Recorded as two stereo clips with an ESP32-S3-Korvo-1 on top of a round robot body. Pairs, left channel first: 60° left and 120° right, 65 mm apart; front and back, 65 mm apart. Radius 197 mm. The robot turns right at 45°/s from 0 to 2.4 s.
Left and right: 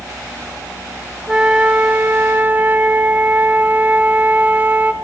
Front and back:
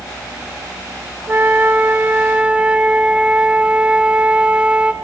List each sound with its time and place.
1.3 s a flute: straight behind, 1.2 m; by 4.9 s 130° right, 1.2 m